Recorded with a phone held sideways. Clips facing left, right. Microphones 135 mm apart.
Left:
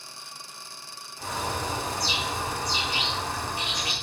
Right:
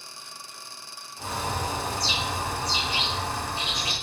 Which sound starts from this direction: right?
A bird, at 1.2 s.